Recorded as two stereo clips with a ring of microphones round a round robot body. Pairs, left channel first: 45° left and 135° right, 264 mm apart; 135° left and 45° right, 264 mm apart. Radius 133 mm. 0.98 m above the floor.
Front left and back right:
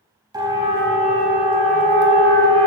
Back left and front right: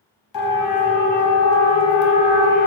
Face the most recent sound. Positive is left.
turn(degrees=-175)